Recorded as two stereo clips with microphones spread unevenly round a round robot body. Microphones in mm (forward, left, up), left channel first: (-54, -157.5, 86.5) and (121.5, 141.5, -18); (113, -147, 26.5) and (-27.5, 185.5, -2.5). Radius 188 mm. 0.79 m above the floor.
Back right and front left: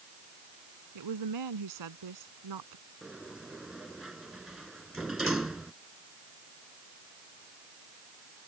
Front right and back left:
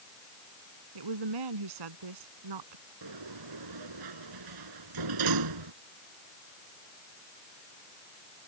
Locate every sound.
0.9 s a woman speaking: 95° left
3.0 s a sliding door: 150° left